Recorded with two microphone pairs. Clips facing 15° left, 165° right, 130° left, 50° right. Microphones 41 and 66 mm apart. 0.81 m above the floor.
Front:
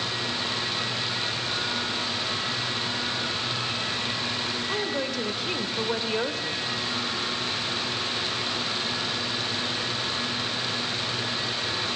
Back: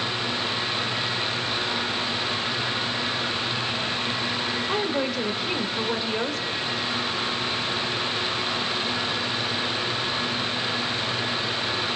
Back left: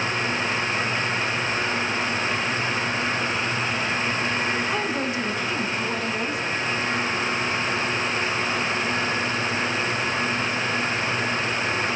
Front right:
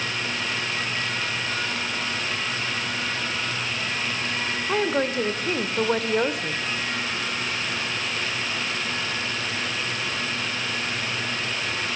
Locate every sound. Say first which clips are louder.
4.7 s a woman speaking: back 3 dB, front right 2 dB; 90° right, 2.5 m; by 6.7 s 65° right, 2 m